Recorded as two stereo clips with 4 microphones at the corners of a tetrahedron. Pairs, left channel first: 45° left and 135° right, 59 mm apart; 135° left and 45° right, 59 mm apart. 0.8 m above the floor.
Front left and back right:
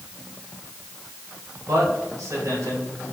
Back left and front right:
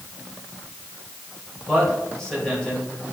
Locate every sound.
1.7 s a man speaking: 145° right, 4.5 m